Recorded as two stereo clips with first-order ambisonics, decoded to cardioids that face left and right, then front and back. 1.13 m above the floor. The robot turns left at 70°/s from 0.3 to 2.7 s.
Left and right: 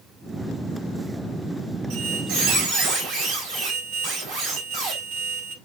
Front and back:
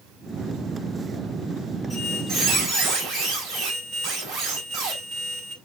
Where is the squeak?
65° right, 4 m; by 5.5 s 120° right, 4 m.